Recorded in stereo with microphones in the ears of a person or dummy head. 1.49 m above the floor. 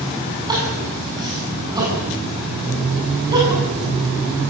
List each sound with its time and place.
0.5 s crying: 20° right (ahead or behind), 8 m